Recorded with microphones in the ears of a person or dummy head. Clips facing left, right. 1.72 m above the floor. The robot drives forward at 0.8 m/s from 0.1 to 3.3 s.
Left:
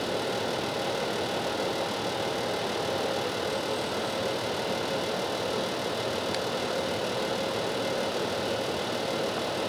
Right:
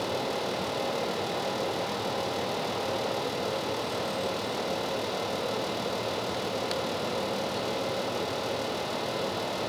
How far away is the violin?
I don't hear a violin.